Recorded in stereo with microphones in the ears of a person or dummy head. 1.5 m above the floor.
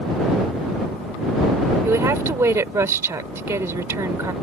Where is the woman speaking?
15° right (ahead or behind).